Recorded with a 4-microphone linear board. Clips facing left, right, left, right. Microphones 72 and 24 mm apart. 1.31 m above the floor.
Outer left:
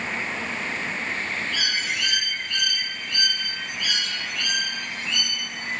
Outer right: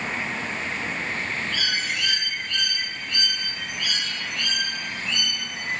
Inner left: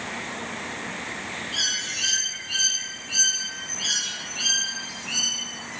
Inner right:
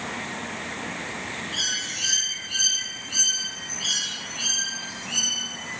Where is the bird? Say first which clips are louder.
Even, inner left 2 dB; 10° left (ahead or behind), 2.5 m.